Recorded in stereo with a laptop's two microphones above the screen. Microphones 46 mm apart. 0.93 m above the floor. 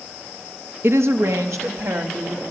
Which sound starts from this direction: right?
A woman speaking, at 0.8 s.